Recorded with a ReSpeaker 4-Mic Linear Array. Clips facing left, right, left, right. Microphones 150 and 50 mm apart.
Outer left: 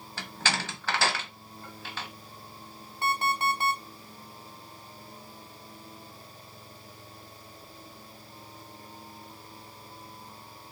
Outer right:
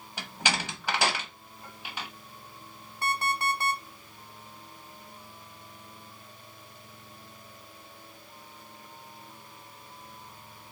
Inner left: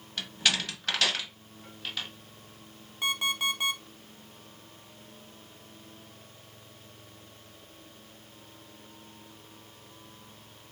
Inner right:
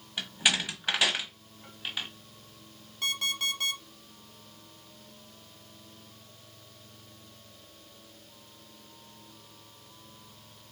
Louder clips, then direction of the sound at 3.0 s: Outer left 2 dB, inner left 2 dB; 20° left (ahead or behind).